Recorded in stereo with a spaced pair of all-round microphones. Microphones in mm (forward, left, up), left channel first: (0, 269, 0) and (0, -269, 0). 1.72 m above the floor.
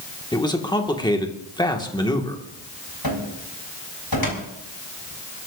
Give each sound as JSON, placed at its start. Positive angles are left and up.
{"t": 0.3, "sound": "a man speaking", "side_deg": 10, "distance_m": 1.7}
{"t": 3.0, "sound": "a cupboard door", "side_deg": 40, "distance_m": 3.5}